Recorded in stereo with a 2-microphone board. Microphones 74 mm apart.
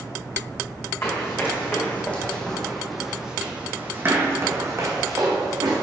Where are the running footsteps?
35° left (ahead or behind), 2 m; by 5.8 s 55° right (ahead or behind), 2.5 m.